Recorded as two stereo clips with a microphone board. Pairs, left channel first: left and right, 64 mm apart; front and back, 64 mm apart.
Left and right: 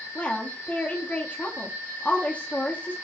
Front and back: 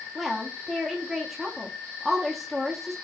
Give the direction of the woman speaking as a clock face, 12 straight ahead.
9 o'clock.